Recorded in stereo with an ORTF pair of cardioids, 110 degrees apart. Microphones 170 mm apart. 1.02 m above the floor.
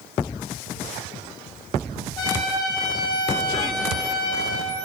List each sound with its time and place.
2.2 s a trumpet: 25° left, 5 m